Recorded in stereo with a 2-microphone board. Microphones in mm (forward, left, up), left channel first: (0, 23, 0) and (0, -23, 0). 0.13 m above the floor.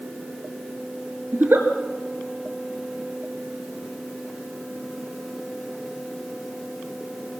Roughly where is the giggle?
Right.